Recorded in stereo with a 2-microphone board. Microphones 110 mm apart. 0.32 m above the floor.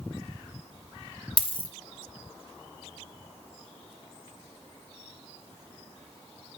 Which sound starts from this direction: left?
A dropped coin, at 1.4 s.